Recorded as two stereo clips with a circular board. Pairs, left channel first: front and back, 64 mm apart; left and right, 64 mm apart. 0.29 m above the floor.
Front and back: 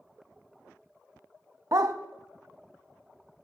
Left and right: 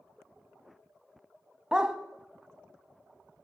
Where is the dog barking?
165° right, 0.6 m.